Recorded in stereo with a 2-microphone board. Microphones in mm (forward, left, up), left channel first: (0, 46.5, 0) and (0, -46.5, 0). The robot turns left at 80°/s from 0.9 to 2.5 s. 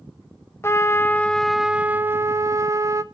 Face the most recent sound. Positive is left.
turn(degrees=-80)